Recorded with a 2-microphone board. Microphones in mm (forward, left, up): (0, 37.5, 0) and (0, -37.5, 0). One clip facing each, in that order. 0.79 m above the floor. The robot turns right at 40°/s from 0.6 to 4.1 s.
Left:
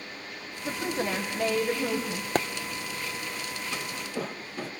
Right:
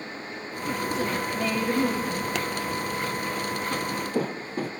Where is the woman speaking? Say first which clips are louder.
Right 2 dB; 125° left, 4.5 m; by 2.2 s 175° right, 4.5 m.